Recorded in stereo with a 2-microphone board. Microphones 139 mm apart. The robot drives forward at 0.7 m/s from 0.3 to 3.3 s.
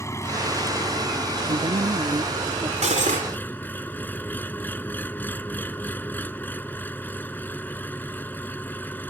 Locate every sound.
0.0 s an engine running: 20° left (ahead or behind); by 9.1 s 15° left (ahead or behind)
1.5 s a woman speaking: 40° right (ahead or behind); by 2.7 s 25° right (ahead or behind)
2.8 s cutlery clinking: 55° right (ahead or behind); by 3.3 s 60° right (ahead or behind)